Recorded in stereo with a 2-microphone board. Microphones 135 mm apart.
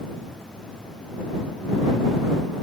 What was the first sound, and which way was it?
Only background noise.